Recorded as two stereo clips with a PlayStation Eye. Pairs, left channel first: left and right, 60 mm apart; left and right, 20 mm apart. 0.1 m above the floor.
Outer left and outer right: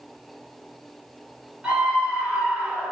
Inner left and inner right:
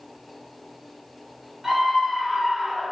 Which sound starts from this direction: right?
A scream, at 1.6 s.